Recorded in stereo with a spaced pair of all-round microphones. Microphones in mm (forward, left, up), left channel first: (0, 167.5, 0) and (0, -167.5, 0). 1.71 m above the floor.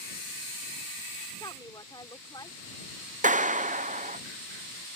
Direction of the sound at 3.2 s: 25° right (ahead or behind).